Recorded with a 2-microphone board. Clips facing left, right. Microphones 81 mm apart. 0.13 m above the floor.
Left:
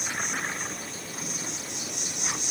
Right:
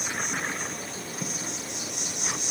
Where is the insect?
50° right (ahead or behind), 3 m.